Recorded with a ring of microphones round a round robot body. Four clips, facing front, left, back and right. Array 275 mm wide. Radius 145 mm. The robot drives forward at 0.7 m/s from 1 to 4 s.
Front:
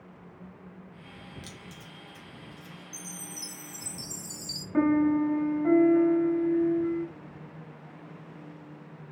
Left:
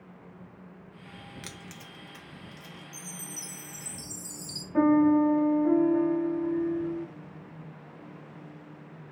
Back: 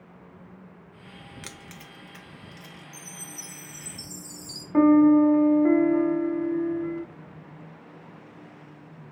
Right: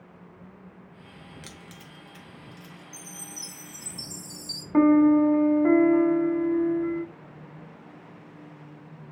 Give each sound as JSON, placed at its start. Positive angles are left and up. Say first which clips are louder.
{"t": 1.4, "sound": "keys jangling", "louder": "left 1 dB, back 2 dB", "azimuth_deg": 155, "distance_m": 0.5}
{"t": 2.9, "sound": "a chime", "louder": "even, even", "azimuth_deg": 10, "distance_m": 1.3}
{"t": 4.7, "sound": "a piano", "louder": "right 4 dB, back 7 dB", "azimuth_deg": -110, "distance_m": 1.0}